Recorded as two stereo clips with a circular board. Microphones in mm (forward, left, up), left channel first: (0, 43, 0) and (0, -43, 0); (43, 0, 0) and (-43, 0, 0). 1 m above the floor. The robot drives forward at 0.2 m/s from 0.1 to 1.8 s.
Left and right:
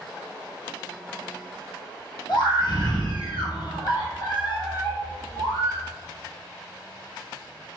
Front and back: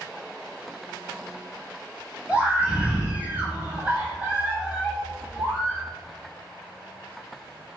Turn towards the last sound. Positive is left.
turn(degrees=105)